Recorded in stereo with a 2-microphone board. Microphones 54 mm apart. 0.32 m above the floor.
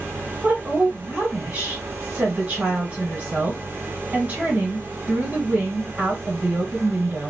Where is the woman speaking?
25° right (ahead or behind), 2 m.